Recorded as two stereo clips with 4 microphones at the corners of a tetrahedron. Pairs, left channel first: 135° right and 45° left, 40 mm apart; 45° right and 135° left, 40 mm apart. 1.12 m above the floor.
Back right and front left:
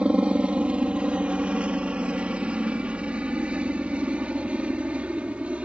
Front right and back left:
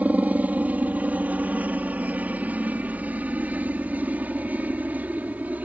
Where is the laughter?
No laughter in this recording.